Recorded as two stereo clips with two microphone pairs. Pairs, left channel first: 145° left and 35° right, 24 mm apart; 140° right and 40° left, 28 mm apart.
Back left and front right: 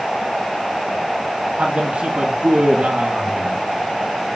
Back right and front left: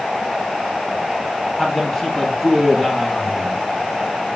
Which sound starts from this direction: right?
A man speaking, at 1.6 s.